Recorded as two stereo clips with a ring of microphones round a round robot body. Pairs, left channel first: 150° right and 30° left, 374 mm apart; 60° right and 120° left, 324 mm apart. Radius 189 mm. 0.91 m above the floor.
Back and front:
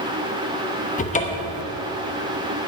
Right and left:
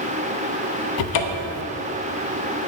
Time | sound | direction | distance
1.0 | a cupboard door | 80° right | 0.9 m